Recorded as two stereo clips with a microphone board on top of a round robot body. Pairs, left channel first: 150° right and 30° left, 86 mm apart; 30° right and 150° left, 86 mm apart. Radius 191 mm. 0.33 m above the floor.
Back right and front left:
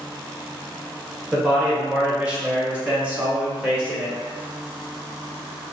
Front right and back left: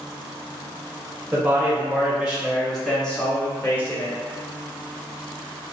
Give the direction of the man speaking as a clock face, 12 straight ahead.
9 o'clock.